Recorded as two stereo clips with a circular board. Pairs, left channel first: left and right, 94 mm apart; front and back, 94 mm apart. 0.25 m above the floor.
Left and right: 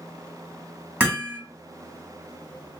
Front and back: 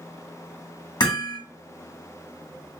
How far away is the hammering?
About 1.4 m.